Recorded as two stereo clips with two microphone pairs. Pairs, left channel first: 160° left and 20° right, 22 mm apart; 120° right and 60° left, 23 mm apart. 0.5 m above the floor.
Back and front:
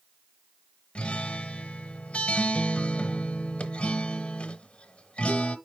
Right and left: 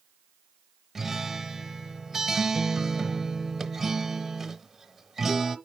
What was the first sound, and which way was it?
A guitar, 140° left.